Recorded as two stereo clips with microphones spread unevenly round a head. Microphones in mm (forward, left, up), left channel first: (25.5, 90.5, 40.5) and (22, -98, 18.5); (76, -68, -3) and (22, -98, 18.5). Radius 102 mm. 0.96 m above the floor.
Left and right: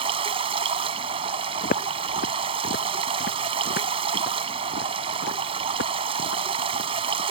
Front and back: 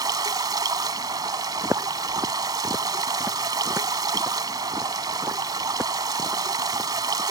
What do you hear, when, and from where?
0.0 s running water: 160° right
1.6 s footsteps: 140° left; by 7.2 s 125° left